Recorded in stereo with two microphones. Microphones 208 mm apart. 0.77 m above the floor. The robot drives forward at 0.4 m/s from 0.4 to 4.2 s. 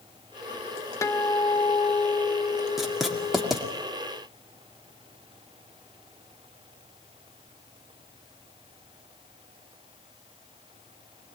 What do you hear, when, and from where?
1.0 s a guitar: 15° left (ahead or behind), 1.1 m; by 3.5 s 30° left (ahead or behind), 0.5 m
2.8 s writing: centre (ahead or behind), 1.9 m